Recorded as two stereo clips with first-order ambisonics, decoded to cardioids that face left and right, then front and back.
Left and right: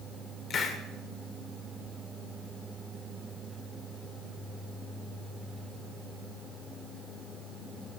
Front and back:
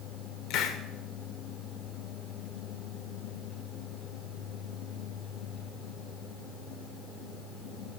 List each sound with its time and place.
0.5 s a hiss: 35° left, 1.1 m